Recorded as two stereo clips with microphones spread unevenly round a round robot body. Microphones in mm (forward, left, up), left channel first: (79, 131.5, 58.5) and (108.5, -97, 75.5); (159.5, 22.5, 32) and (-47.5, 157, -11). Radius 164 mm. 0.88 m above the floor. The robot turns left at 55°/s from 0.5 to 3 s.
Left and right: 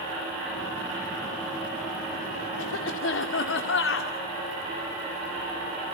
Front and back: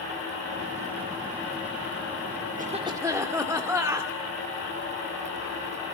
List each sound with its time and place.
2.6 s a cough: 90° left, 2.5 m; by 4.1 s 70° left, 2.5 m